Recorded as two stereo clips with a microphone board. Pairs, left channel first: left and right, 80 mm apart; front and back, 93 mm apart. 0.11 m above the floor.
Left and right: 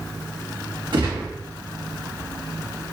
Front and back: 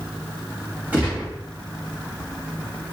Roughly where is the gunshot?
Right.